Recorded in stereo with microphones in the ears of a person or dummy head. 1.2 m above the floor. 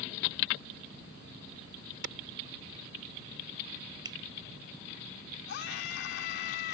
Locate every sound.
2.0 s a clap: 70° right (ahead or behind)
4.0 s a finger snap: 25° right (ahead or behind)
5.5 s a scream: 65° left (ahead or behind)